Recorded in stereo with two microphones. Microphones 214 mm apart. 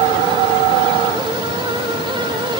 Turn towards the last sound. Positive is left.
No sound to turn to.